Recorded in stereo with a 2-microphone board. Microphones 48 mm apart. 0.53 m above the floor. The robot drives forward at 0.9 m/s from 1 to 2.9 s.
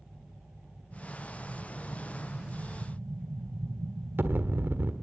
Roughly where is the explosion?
Right.